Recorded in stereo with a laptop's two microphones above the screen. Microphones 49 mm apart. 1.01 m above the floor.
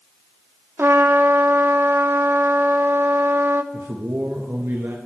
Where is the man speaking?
70° right (ahead or behind), 1.3 m.